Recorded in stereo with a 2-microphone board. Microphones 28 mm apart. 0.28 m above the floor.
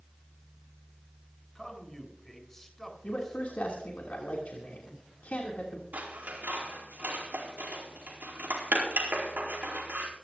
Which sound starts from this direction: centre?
A man speaking, at 1.6 s.